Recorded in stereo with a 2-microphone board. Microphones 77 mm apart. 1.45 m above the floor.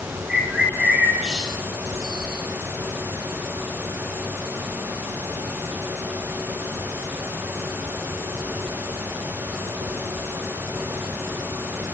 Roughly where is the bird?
Centre.